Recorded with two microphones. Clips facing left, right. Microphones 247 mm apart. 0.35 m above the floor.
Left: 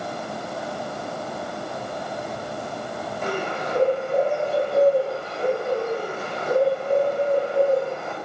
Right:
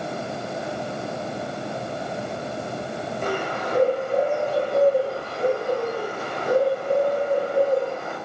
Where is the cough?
No cough in this recording.